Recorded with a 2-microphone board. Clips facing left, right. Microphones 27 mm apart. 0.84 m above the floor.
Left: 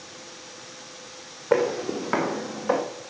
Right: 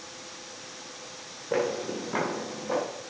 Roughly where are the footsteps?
Left.